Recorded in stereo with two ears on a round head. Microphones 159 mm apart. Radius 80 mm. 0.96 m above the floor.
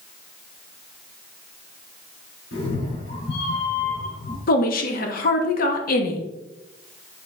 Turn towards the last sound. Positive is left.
turn(degrees=50)  # may be behind; listen again after turning